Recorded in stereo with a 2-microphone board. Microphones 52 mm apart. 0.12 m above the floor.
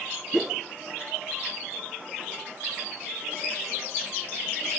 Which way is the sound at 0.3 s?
15° right (ahead or behind).